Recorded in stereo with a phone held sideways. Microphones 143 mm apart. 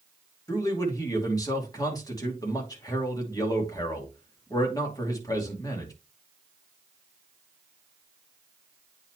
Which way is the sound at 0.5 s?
25° left (ahead or behind).